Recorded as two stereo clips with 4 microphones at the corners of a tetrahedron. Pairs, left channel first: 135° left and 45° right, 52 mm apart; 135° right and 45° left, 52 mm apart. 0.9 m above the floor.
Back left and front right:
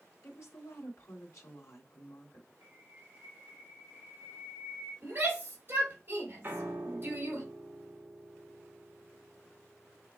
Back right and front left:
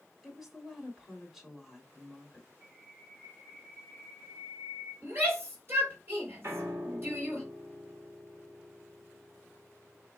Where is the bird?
25° right, 3.5 m.